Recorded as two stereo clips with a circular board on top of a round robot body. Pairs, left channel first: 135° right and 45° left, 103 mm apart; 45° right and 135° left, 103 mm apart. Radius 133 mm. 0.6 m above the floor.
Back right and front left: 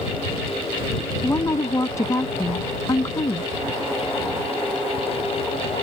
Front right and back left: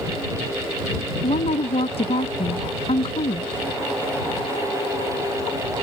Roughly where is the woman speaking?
Right.